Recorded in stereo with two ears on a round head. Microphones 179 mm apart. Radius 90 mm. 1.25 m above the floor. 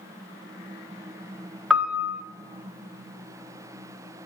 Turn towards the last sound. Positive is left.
turn(degrees=-5)  # may be behind; listen again after turning